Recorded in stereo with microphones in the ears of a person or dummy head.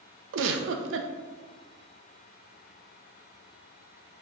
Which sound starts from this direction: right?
A giggle, at 0.3 s.